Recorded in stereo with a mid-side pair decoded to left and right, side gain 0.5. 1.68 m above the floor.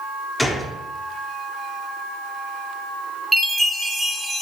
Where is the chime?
10° right, 1.0 m.